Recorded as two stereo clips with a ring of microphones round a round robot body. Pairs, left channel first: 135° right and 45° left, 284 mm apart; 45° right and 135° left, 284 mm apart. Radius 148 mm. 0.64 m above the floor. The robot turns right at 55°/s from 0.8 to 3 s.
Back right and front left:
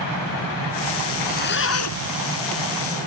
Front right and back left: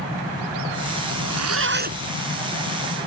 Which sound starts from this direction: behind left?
A zipper, at 1.1 s.